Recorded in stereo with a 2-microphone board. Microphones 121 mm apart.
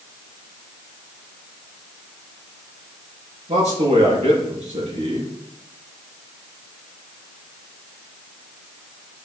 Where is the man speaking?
70° right (ahead or behind), 5 m.